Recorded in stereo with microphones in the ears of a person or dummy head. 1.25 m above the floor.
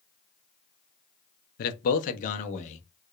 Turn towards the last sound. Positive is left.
turn(degrees=35)  # may be behind; listen again after turning